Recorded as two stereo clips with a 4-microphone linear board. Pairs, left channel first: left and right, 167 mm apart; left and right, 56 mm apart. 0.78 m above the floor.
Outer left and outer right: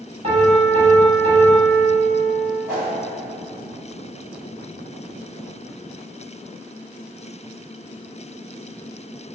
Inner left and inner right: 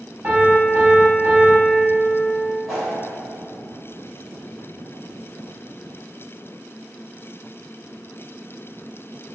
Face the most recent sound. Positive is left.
turn(degrees=-5)  # may be behind; listen again after turning